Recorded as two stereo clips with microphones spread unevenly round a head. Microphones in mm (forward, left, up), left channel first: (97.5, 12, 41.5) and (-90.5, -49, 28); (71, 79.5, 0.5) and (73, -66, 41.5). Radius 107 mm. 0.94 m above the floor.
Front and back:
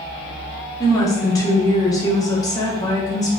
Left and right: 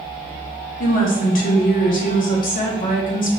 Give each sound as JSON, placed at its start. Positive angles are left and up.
{"t": 0.8, "sound": "a woman speaking", "azimuth_deg": 90, "distance_m": 1.0}